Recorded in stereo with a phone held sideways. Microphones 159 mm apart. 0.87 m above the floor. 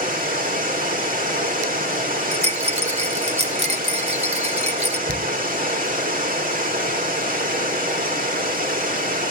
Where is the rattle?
40° right (ahead or behind), 1.3 m.